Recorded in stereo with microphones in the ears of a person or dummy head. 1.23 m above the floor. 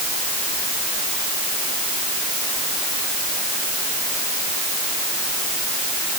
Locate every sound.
Only background noise.